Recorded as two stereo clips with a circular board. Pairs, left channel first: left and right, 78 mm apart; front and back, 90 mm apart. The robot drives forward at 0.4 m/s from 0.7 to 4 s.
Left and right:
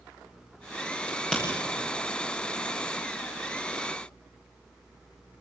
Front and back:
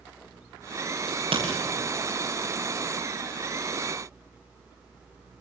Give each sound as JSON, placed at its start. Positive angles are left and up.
{"t": 1.1, "sound": "a crack", "azimuth_deg": 170, "distance_m": 9.0}